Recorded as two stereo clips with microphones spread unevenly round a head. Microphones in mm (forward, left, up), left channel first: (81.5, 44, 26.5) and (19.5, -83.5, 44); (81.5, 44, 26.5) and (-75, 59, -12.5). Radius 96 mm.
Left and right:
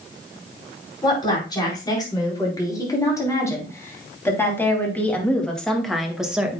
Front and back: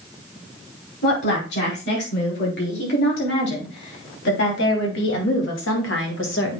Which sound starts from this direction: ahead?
A woman speaking, at 1.0 s.